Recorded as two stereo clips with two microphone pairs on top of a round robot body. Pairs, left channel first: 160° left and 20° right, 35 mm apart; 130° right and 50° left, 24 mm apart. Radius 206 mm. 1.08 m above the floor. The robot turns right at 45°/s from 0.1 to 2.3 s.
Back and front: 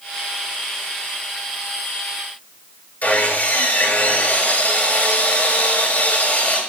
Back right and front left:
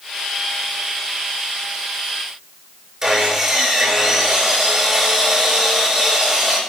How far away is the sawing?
About 7 m.